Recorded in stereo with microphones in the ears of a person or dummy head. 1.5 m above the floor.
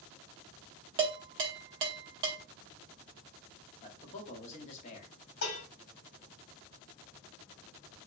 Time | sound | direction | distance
1.0 | dishes clattering | 25° right (ahead or behind) | 0.5 m
3.8 | a man speaking | 40° left (ahead or behind) | 0.8 m
5.4 | dishes clattering | 65° left (ahead or behind) | 1.8 m